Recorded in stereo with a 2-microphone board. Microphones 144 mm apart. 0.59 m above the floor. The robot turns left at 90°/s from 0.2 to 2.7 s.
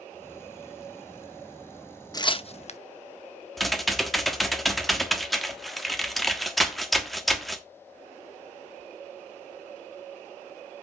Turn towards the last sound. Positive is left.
turn(degrees=0)  # may be behind; listen again after turning